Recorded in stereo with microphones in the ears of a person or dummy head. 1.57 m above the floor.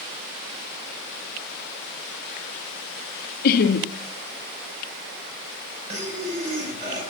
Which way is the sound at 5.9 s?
40° right (ahead or behind).